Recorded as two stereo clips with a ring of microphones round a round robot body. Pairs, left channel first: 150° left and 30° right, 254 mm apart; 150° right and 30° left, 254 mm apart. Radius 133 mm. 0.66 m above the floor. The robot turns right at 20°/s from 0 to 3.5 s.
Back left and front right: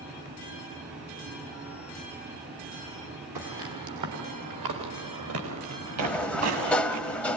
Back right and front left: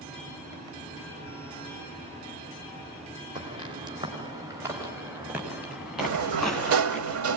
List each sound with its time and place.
3.4 s footsteps: 45° right, 6 m; by 7.0 s 65° right, 6 m
6.0 s a sliding door: 65° left, 0.8 m